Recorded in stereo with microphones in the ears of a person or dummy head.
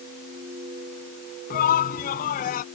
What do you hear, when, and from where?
1.5 s a shout: 55° left (ahead or behind); by 2.6 s 50° left (ahead or behind)